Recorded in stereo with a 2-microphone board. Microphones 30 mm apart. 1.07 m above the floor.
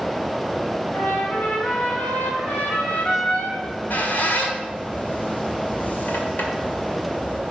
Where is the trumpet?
80° left, 3 m.